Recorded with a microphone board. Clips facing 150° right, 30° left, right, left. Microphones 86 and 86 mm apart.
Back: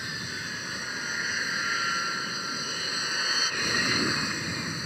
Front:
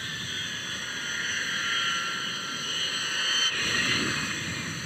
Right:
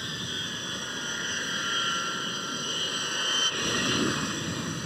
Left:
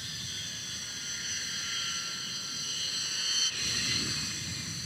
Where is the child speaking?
No child speaking in this recording.